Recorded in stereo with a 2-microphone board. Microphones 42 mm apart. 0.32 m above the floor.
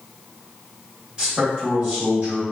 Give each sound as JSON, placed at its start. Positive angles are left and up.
{"t": 1.2, "sound": "a man speaking", "side_deg": -30, "distance_m": 1.6}